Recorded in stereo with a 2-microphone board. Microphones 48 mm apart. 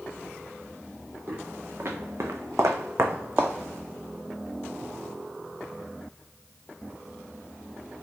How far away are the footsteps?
About 1.4 m.